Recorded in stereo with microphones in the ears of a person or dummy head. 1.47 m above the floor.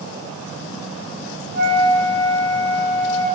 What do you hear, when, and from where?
1.5 s a flute: 40° right (ahead or behind), 0.6 m